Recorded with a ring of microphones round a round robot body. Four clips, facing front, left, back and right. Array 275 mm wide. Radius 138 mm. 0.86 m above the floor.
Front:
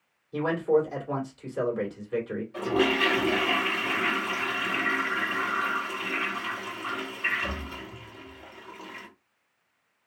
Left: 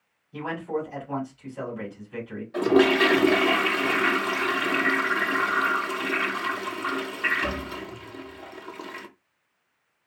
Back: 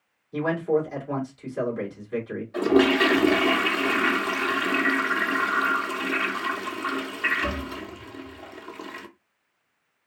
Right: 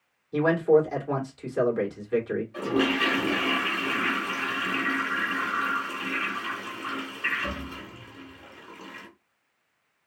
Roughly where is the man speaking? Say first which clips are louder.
Right 10 dB, even; right.